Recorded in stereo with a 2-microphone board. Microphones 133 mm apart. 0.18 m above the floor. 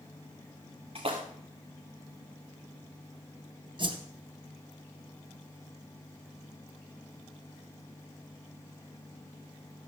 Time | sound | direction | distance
0.9 | a splash | 45° right (ahead or behind) | 3.5 m
3.8 | a whoosh | 40° right (ahead or behind) | 2.5 m